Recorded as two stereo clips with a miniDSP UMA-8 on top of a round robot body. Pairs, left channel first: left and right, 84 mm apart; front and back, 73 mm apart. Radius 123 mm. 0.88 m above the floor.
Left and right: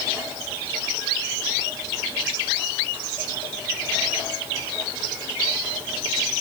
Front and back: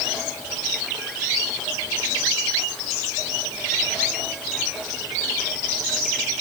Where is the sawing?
No sawing in this recording.